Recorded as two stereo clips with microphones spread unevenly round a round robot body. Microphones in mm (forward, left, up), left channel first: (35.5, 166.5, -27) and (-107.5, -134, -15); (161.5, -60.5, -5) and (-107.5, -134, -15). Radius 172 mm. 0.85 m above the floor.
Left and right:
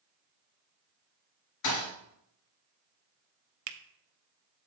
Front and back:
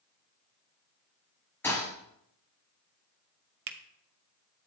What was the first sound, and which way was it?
A thud, 100° left.